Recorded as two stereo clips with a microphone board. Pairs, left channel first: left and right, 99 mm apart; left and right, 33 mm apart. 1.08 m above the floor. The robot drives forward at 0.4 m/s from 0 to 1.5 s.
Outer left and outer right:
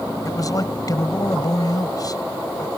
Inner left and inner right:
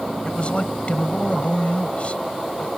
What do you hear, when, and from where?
0.2 s a man speaking: 40° left (ahead or behind)